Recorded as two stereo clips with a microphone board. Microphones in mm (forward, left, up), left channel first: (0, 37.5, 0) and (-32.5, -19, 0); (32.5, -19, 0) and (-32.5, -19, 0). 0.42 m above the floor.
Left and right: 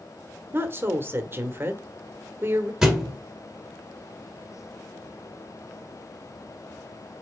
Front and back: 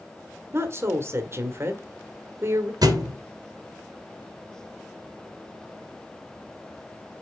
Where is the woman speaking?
155° right, 1.2 m.